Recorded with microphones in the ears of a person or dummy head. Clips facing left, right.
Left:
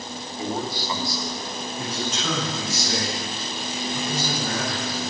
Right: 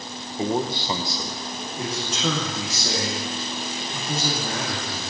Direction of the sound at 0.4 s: 25° right (ahead or behind).